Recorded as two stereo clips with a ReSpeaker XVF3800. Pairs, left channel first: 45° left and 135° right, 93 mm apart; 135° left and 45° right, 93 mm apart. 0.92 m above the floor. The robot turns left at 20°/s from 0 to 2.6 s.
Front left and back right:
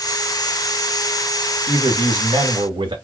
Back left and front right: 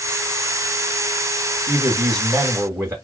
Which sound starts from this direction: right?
A man speaking, at 1.7 s.